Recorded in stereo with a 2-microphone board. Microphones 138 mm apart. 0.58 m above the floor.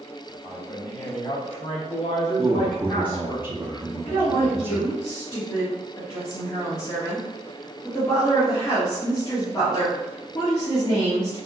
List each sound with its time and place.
0.4 s a man speaking: 25° left (ahead or behind), 1.3 m; by 3.4 s 40° left (ahead or behind), 1.5 m
2.4 s a man speaking: 20° right (ahead or behind), 0.7 m
4.0 s a woman speaking: 35° left (ahead or behind), 1.1 m